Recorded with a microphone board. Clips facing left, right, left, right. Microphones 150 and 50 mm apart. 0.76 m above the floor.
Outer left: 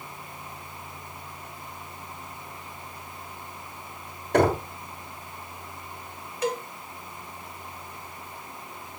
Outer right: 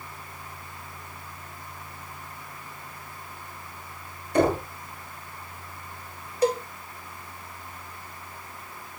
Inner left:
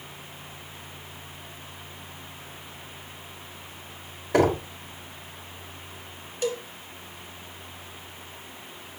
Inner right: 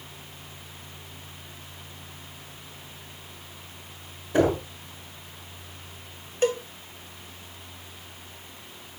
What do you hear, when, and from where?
4.3 s knocking: 85° left, 3.5 m
6.4 s a cowbell: 35° right (ahead or behind), 0.7 m